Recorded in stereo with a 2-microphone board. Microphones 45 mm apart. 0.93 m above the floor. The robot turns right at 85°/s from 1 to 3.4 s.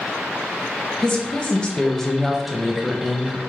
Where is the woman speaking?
20° left (ahead or behind), 0.8 m; by 3.4 s 20° right (ahead or behind), 0.8 m.